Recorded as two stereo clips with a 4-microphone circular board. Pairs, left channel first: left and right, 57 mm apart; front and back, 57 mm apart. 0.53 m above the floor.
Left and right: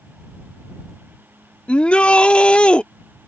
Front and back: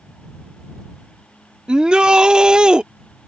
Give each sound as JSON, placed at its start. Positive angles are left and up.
{"t": 1.7, "sound": "a shout", "azimuth_deg": 135}